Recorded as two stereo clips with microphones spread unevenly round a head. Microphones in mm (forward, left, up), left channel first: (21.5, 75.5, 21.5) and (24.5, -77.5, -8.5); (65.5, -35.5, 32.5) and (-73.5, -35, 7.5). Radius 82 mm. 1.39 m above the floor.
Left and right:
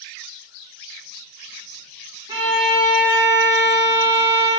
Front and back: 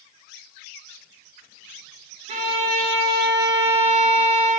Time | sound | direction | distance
2.3 | a violin | 150° right | 0.6 m